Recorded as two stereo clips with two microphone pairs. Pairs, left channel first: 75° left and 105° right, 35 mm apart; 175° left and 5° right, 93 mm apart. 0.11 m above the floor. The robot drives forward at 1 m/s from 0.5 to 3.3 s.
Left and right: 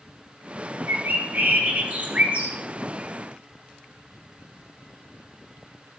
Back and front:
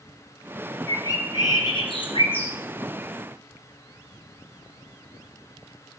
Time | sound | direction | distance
0.9 | a bird | 120° right | 1.0 m